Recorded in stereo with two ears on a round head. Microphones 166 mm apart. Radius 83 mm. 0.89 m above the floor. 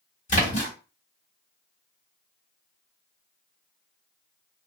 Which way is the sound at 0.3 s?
40° left (ahead or behind).